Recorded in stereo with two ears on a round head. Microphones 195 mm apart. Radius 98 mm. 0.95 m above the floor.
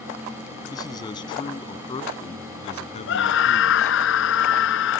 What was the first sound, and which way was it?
A man speaking, 20° left (ahead or behind).